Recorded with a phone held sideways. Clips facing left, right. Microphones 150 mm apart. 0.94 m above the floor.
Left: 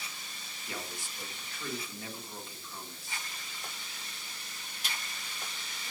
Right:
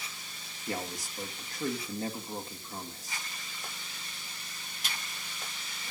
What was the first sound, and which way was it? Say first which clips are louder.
A man speaking: right 6 dB; 40° right (ahead or behind).